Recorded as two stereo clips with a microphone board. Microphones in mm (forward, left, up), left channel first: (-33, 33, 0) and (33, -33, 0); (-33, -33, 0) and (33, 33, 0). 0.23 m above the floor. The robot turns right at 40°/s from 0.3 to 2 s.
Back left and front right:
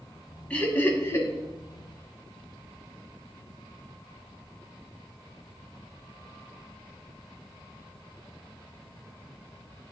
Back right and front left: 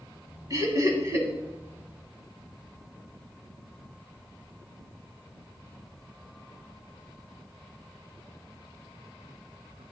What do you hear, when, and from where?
0.5 s laughter: 65° left, 1.3 m; by 1.3 s 95° left, 1.3 m